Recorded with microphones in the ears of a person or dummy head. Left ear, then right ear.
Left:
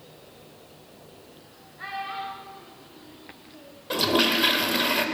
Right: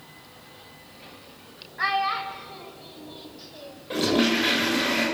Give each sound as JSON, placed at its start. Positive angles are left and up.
{"t": 1.8, "sound": "a child speaking", "side_deg": -55, "distance_m": 4.0}
{"t": 3.9, "sound": "a toilet flushing", "side_deg": 40, "distance_m": 4.0}